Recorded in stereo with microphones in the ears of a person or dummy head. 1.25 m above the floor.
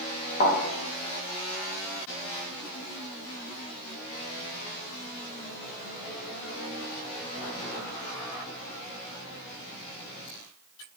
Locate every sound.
0.4 s a thud: 45° left (ahead or behind), 0.7 m